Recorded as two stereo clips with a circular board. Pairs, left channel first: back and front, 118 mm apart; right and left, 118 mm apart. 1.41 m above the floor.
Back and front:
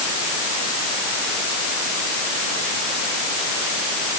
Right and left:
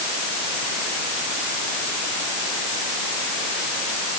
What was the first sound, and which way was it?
Only background noise.